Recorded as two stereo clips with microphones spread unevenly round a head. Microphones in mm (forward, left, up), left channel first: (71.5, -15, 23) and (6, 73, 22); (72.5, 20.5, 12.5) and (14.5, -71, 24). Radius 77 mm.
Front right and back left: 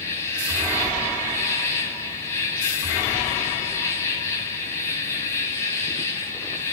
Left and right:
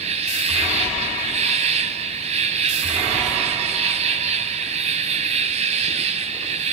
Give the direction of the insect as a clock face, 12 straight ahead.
4 o'clock.